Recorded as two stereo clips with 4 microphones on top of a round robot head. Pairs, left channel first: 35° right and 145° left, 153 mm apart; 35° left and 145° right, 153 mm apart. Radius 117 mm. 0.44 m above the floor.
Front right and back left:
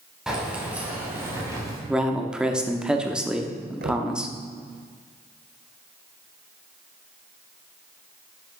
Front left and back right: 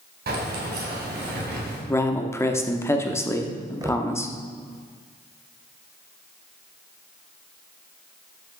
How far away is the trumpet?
I don't hear a trumpet.